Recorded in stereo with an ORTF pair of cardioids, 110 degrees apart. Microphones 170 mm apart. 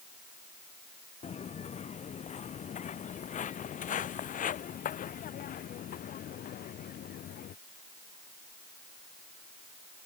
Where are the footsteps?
40° left; by 7.5 s 60° left.